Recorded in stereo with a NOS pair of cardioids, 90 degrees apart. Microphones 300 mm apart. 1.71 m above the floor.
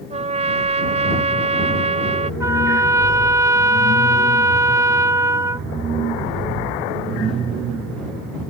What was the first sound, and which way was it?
A trumpet, 20° right.